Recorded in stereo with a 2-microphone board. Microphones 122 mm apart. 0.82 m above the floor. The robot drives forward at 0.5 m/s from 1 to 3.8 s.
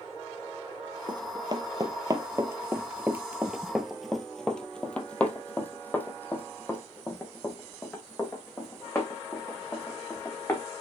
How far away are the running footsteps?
About 1.3 m.